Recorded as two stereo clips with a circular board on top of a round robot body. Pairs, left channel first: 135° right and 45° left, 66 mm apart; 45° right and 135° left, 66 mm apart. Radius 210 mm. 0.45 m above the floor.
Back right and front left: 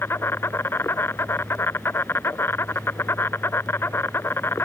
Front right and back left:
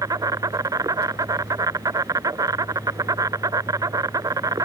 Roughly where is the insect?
Behind.